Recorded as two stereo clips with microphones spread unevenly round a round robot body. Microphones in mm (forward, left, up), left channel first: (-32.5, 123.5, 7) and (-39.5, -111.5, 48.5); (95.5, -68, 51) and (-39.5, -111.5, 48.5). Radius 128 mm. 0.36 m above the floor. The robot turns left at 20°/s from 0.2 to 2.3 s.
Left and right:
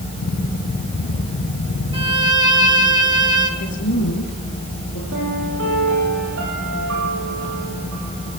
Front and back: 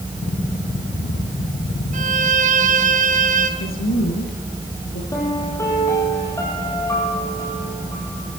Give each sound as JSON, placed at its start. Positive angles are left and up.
{"t": 1.9, "sound": "a violin", "azimuth_deg": -160, "distance_m": 3.0}
{"t": 3.6, "sound": "a woman speaking", "azimuth_deg": 40, "distance_m": 6.5}
{"t": 5.1, "sound": "a piano", "azimuth_deg": -50, "distance_m": 8.0}